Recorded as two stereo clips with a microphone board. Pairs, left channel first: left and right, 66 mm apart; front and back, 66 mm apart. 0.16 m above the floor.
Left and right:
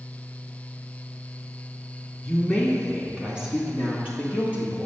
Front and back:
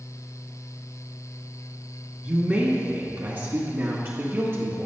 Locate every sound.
2.2 s a woman speaking: 170° left, 1.6 m; by 4.9 s 140° right, 2.5 m